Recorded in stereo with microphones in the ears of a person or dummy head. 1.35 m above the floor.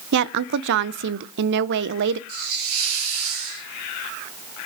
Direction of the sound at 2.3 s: 60° right (ahead or behind).